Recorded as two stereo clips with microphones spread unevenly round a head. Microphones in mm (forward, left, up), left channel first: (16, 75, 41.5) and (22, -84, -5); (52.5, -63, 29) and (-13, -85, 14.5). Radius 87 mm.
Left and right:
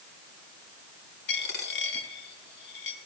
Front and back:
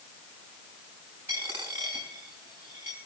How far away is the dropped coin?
About 4.5 m.